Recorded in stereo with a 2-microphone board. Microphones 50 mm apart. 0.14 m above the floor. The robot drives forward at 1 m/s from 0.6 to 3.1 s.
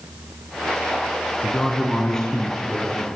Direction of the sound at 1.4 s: 15° left (ahead or behind).